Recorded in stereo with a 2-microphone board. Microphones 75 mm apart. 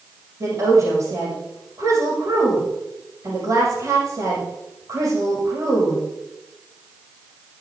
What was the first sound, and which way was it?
A woman speaking, 45° right (ahead or behind).